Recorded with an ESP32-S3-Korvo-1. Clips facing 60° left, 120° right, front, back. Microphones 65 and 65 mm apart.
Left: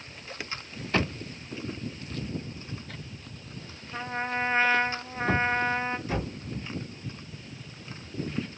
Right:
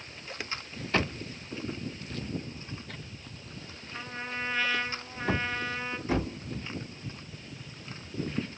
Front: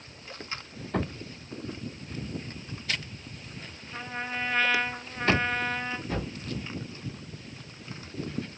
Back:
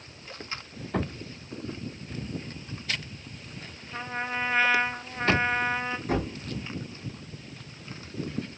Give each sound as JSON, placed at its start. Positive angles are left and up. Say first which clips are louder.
{"t": 3.9, "sound": "a trumpet", "louder": "left 7 dB, back 3 dB", "azimuth_deg": 110, "distance_m": 0.6}
{"t": 6.1, "sound": "a thud", "louder": "right 2 dB, back 5 dB", "azimuth_deg": 175, "distance_m": 3.5}